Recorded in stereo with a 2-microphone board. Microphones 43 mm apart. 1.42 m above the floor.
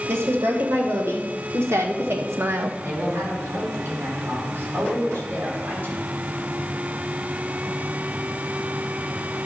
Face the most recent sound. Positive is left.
turn(degrees=-50)  # may be behind; listen again after turning